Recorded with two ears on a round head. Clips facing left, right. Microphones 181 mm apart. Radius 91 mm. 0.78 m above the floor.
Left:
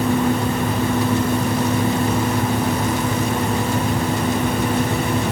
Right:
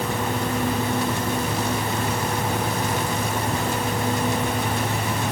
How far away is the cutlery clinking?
No cutlery clinking in this recording.